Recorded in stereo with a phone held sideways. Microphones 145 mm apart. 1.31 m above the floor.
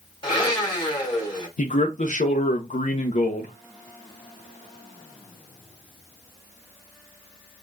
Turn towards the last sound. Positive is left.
turn(degrees=60)  # may be behind; listen again after turning